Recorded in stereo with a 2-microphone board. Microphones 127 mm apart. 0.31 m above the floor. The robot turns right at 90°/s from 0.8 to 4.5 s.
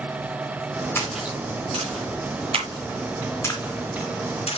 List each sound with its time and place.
0.9 s a splash: 20° left (ahead or behind), 3 m; by 4.6 s 55° left (ahead or behind), 3 m